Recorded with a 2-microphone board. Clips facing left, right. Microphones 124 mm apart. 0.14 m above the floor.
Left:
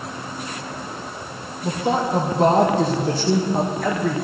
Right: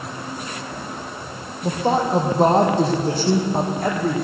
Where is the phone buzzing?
I don't hear a phone buzzing.